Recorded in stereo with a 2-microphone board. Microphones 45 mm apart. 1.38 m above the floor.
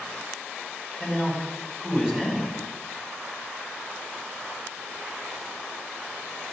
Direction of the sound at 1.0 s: 10° right (ahead or behind).